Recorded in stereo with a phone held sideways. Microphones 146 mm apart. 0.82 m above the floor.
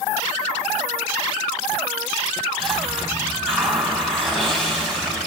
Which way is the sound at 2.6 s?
5° left (ahead or behind).